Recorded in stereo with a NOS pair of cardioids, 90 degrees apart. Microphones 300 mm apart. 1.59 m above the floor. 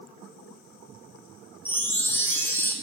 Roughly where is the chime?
Ahead.